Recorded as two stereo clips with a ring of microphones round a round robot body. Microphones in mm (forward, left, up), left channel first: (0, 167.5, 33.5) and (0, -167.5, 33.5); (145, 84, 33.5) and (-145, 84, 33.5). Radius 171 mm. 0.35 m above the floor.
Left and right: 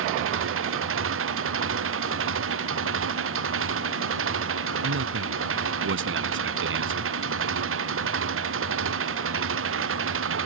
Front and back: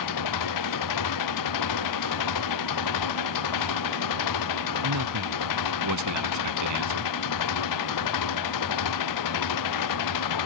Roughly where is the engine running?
Ahead right.